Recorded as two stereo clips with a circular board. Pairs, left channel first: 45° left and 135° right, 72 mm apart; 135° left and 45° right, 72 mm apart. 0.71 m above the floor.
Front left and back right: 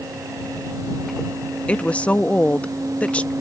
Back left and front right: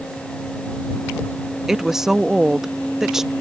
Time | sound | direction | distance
1.7 | a woman speaking | 25° left | ?